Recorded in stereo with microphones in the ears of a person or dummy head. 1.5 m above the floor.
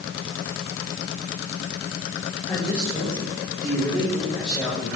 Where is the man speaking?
15° left (ahead or behind), 6.5 m; by 4.9 s 5° left (ahead or behind), 7.5 m.